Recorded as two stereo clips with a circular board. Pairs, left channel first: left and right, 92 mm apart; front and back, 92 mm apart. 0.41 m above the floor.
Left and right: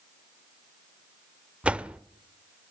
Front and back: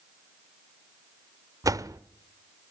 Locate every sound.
1.6 s a door slam: 160° right, 0.7 m